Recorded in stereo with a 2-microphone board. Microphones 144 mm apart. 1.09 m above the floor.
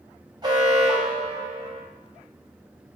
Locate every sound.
0.4 s an alarm: 25° right (ahead or behind), 1.3 m